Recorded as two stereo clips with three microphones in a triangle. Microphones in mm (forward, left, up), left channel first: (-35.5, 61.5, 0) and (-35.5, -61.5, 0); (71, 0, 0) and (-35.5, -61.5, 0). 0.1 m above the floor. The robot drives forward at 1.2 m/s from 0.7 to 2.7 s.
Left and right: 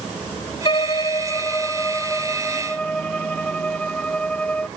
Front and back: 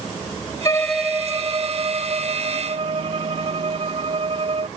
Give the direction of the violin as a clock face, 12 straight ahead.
9 o'clock.